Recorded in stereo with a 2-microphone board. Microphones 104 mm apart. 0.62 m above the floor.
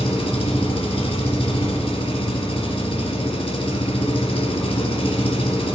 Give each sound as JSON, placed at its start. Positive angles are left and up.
{"t": 0.0, "sound": "an engine running", "side_deg": 65, "distance_m": 1.5}